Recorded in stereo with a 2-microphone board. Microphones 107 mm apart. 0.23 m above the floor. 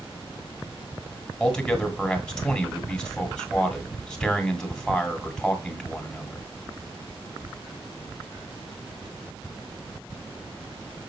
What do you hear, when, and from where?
1.4 s a man speaking: 5° left (ahead or behind), 2 m